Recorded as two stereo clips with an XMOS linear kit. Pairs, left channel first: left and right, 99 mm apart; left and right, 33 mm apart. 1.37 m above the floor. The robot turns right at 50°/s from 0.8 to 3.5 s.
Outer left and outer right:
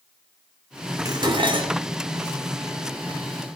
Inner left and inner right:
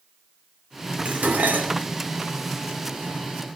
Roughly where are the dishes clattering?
Behind right.